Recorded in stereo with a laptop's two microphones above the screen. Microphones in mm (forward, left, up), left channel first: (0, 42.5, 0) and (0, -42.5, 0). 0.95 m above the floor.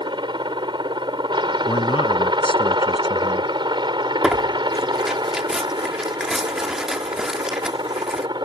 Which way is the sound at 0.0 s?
70° right (ahead or behind).